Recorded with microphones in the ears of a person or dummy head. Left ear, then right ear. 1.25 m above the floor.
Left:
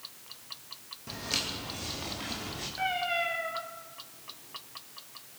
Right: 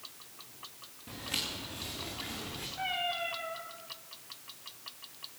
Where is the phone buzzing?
I don't hear a phone buzzing.